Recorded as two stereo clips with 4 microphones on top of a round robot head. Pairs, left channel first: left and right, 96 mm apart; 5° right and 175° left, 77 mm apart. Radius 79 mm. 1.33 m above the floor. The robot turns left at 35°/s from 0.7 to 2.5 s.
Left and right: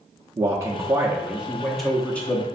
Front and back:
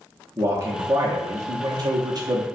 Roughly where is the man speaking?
Behind right.